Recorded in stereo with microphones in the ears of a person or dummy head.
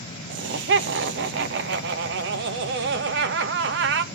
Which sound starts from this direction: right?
Laughter, at 0.3 s.